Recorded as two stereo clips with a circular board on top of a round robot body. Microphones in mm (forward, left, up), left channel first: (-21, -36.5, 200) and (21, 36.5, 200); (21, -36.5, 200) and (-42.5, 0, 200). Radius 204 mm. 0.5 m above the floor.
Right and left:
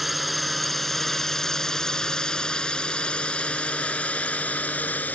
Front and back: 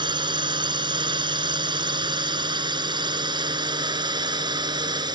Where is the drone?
150° left; by 5.2 s 170° left.